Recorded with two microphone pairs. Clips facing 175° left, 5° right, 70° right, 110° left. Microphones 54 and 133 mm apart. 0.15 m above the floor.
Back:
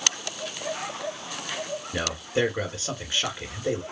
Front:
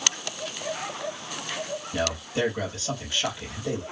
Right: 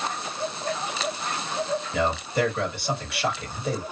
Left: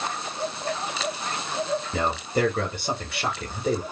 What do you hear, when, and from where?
1.9 s a man speaking: 125° left, 1.7 m